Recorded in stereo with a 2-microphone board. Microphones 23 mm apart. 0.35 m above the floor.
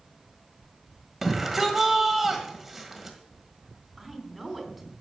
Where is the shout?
10° right (ahead or behind), 1.5 m.